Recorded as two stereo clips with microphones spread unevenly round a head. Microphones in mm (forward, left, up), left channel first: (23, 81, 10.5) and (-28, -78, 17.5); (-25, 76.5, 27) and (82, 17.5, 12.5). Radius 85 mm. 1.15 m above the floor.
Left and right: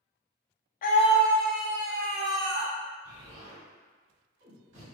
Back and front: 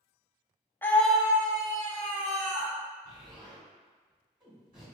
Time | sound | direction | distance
0.8 | a scream | 75° left | 0.7 m
3.0 | an explosion | 95° right | 2.0 m